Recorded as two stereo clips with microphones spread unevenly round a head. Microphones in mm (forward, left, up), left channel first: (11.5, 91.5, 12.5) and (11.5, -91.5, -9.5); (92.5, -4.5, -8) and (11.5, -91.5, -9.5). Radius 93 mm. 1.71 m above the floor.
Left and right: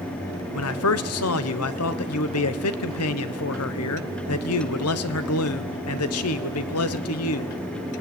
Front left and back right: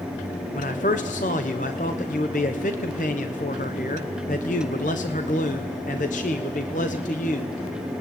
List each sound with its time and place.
0.5 s a man speaking: 100° left, 1.2 m